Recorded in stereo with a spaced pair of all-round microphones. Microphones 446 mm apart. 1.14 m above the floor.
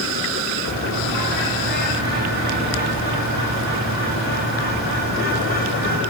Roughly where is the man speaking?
No man speaking in this recording.